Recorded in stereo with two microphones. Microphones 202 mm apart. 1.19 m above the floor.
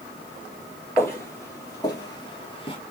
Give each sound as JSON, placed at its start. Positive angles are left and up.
{"t": 1.0, "sound": "footsteps", "side_deg": 10, "distance_m": 2.0}